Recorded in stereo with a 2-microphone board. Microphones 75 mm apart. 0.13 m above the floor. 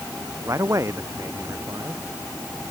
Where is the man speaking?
40° right (ahead or behind).